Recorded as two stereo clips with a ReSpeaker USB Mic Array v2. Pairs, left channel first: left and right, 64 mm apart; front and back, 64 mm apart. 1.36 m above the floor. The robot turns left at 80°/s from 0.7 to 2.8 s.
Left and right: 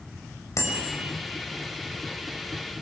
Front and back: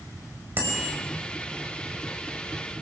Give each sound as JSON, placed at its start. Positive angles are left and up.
{"t": 0.6, "sound": "a bicycle bell", "azimuth_deg": 125, "distance_m": 5.5}